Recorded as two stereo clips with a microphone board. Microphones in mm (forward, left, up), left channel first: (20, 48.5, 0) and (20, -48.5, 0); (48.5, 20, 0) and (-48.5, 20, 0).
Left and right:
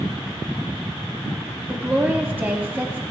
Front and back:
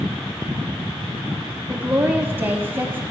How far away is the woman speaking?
About 1.1 m.